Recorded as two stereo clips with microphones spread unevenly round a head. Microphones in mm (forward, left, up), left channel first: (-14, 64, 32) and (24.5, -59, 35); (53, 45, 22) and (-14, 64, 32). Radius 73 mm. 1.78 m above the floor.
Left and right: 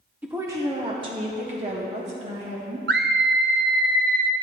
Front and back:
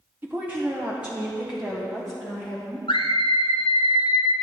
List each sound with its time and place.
0.2 s a woman speaking: 145° right, 0.9 m; by 2.8 s 110° right, 2 m
2.9 s a scream: 65° right, 0.6 m